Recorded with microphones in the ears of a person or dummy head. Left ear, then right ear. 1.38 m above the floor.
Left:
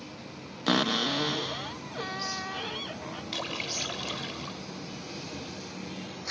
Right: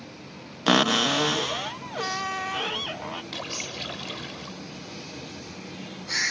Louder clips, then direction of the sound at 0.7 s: Right 6 dB; 35° right (ahead or behind).